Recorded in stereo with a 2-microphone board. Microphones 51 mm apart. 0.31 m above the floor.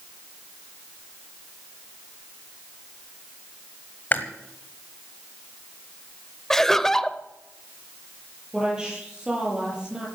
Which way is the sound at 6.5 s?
10° left (ahead or behind).